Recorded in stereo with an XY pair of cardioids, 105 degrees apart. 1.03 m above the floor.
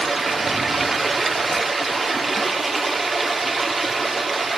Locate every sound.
0.0 s running water: 20° right, 2.5 m